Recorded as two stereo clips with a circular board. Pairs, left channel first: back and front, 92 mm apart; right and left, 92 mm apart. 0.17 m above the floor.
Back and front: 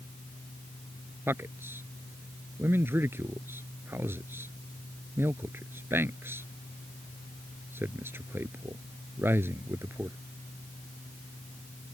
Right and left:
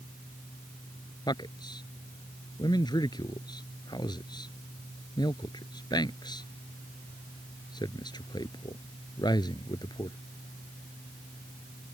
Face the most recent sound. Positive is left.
turn(degrees=-60)